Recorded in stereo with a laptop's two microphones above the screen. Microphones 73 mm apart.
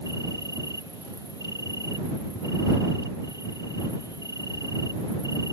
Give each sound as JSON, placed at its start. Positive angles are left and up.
{"t": 0.0, "sound": "an insect", "side_deg": 60}